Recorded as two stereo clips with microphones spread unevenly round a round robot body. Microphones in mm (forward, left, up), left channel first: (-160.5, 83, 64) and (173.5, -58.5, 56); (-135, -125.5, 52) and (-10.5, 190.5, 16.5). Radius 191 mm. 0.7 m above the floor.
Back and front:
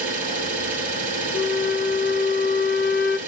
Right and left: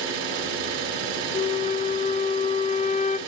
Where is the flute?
175° right, 0.9 m.